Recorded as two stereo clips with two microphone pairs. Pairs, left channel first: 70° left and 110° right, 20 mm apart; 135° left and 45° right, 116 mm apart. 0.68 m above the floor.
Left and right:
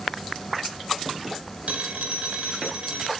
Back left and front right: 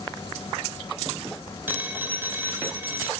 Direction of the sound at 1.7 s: 115° right.